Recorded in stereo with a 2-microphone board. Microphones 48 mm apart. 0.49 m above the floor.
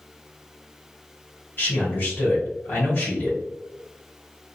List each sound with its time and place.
1.6 s a man speaking: 40° left (ahead or behind), 1.8 m